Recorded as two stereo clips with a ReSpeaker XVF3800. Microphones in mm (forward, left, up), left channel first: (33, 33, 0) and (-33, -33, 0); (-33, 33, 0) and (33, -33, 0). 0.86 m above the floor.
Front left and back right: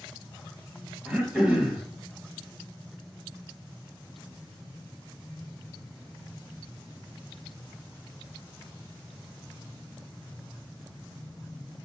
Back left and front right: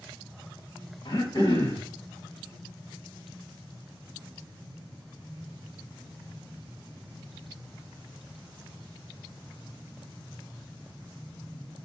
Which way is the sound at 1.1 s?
150° left.